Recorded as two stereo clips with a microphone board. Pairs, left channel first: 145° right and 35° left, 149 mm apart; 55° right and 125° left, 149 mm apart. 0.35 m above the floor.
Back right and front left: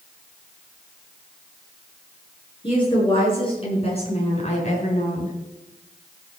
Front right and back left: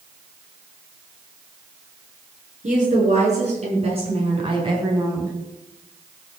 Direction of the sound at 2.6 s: 160° left.